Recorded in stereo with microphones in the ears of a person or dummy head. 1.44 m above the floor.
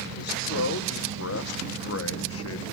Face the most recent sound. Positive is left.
turn(degrees=75)  # may be behind; listen again after turning